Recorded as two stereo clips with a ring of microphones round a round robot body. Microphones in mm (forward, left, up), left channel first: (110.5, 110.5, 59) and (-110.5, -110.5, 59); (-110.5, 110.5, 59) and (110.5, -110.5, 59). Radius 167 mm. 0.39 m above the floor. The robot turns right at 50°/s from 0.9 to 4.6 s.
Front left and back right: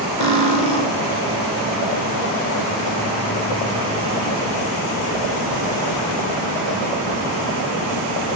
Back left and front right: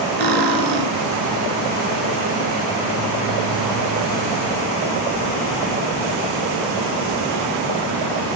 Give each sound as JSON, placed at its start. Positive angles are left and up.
{"t": 0.2, "sound": "cutlery clinking", "azimuth_deg": -65, "distance_m": 3.5}